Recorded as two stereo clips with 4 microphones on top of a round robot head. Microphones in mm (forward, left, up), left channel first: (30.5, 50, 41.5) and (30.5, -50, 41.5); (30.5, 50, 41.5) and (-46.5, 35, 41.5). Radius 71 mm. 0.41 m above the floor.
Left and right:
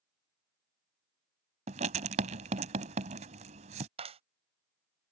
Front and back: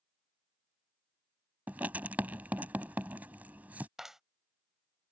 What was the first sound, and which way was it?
Writing, 95° right.